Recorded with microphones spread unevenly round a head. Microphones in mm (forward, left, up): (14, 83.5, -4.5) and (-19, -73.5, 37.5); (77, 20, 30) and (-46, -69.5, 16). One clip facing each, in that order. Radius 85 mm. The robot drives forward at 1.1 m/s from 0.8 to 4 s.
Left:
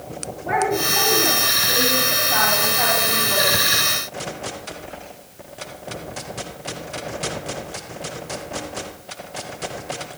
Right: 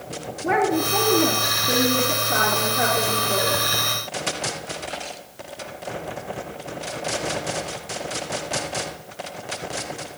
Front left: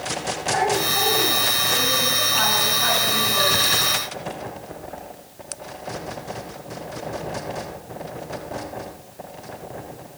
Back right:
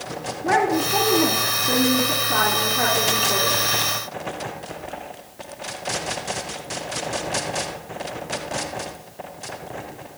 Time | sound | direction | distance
0.4 | a woman speaking | 135° right | 4 m